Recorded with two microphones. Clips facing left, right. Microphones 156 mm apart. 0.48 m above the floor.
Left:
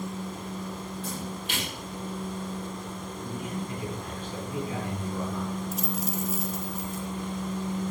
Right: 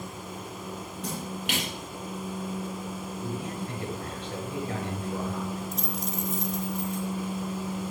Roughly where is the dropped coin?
Centre.